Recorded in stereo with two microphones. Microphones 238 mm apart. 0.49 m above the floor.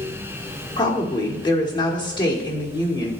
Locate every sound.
0.8 s a woman speaking: 20° left (ahead or behind), 1.3 m